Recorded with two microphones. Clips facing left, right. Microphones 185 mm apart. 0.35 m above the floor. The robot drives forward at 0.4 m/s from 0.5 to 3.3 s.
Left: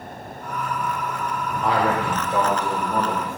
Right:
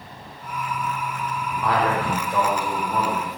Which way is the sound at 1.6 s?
25° left (ahead or behind).